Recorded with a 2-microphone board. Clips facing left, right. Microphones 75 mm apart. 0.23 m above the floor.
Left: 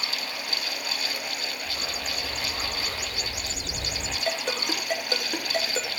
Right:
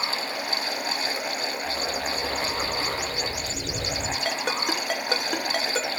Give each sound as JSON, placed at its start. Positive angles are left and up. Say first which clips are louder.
{"t": 1.6, "sound": "a dog barking", "louder": "right 5 dB", "side_deg": -60, "distance_m": 7.0}
{"t": 4.2, "sound": "a ringtone", "louder": "even", "side_deg": -65, "distance_m": 2.5}